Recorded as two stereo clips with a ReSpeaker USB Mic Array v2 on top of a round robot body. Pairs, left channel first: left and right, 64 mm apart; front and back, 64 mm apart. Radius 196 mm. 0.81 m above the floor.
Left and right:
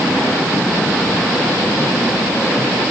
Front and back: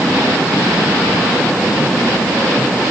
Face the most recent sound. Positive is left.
No sound to turn to.